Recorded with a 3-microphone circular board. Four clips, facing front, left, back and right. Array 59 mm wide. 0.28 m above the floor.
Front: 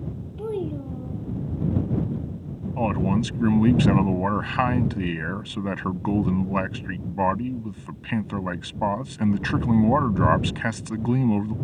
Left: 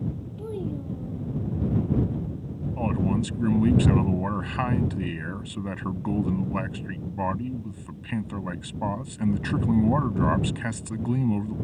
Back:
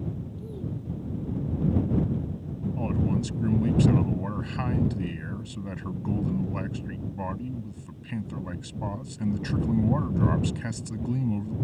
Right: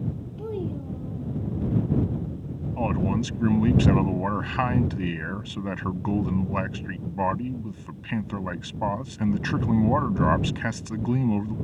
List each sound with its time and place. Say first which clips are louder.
0.4 s a child speaking: right 1 dB, front 8 dB; 5° right
2.8 s a man speaking: even, front 6 dB; 15° right